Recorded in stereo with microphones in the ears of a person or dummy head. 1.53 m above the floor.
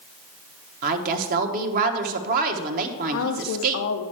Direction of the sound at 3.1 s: 75° left (ahead or behind).